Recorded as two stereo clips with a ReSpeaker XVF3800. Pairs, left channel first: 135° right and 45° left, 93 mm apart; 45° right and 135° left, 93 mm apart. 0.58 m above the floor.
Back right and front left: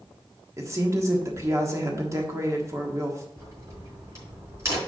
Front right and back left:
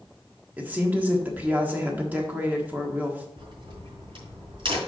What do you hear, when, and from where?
0.6 s a woman speaking: 75° left, 1.4 m
3.4 s a crack: 105° left, 4 m